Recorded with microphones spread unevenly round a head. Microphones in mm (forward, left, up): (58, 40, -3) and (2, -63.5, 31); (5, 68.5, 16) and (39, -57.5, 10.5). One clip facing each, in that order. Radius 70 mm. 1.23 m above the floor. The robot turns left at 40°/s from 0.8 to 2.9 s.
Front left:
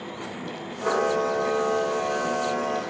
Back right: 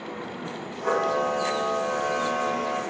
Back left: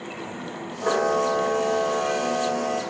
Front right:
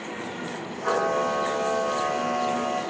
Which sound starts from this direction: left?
A camera shutter, at 0.8 s.